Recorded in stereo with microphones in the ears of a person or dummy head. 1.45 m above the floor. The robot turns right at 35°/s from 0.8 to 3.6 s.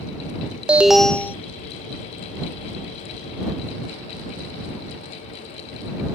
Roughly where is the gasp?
I don't hear a gasp.